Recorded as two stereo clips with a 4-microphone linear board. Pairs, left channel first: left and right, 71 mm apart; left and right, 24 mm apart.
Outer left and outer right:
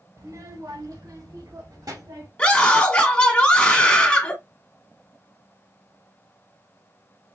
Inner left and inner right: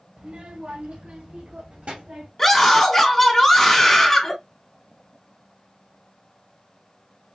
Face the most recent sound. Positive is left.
turn(degrees=20)  # may be behind; listen again after turning